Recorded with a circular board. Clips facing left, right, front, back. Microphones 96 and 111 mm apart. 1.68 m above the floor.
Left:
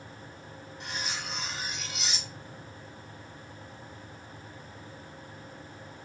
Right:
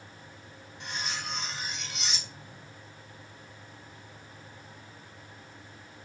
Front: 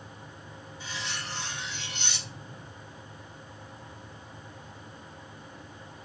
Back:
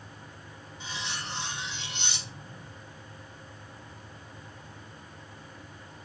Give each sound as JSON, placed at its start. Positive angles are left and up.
{"t": 0.8, "sound": "cutlery clinking", "azimuth_deg": 175, "distance_m": 0.7}